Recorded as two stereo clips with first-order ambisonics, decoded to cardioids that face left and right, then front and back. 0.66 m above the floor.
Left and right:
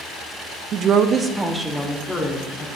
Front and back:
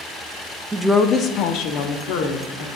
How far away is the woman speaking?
About 0.5 m.